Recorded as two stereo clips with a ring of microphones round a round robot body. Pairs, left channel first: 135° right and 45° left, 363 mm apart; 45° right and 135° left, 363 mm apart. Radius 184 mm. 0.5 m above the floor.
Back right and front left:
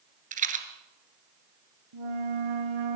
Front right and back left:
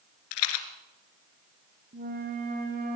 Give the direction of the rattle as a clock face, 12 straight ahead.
1 o'clock.